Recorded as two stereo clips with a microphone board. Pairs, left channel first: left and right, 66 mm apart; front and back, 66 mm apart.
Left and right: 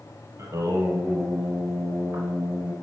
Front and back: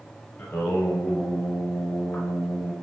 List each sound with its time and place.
0.4 s singing: 60° right, 1.0 m